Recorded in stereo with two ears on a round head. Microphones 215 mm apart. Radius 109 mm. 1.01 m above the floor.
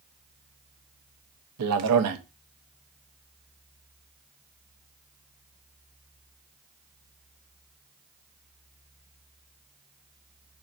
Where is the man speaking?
75° right (ahead or behind), 0.8 m.